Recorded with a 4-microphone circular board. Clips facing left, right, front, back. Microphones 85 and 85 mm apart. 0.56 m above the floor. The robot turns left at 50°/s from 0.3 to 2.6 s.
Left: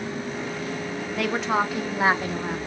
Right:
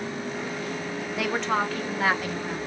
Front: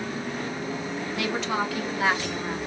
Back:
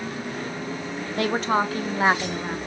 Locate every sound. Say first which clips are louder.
1.2 s a woman speaking: left 2 dB, back 6 dB; 175° right, 0.7 m; by 2.6 s 115° left, 0.7 m